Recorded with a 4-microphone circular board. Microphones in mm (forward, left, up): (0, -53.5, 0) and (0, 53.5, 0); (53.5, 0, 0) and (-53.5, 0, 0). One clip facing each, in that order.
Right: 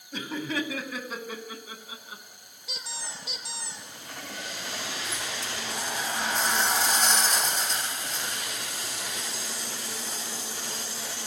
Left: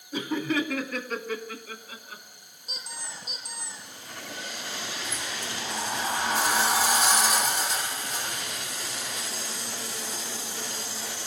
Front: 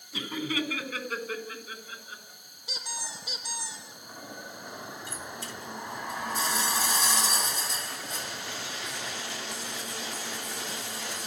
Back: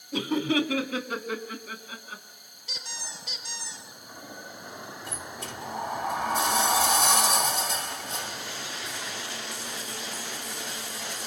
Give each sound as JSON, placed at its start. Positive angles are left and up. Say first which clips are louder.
{"t": 0.1, "sound": "laughter", "louder": "left 4 dB, back 7 dB", "azimuth_deg": 175, "distance_m": 2.5}
{"t": 2.7, "sound": "a squeak", "louder": "right 1 dB, front 3 dB", "azimuth_deg": -80, "distance_m": 5.5}
{"t": 5.1, "sound": "a sliding door", "louder": "even, back 1 dB", "azimuth_deg": 175, "distance_m": 2.0}